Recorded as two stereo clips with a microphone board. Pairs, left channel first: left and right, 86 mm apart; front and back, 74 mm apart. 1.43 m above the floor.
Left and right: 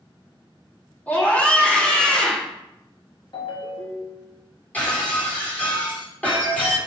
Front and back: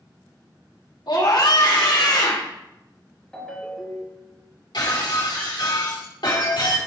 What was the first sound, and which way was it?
A scream, 20° left.